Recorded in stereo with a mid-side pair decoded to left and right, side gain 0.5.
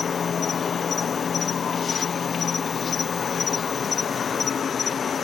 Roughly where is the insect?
Ahead left.